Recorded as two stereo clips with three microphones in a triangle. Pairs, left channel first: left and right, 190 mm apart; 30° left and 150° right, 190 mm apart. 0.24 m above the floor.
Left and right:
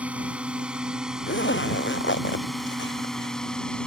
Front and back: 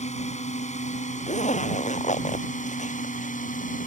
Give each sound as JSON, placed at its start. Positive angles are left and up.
{"t": 0.0, "sound": "a drone", "azimuth_deg": -10}
{"t": 1.3, "sound": "a zipper", "azimuth_deg": 80}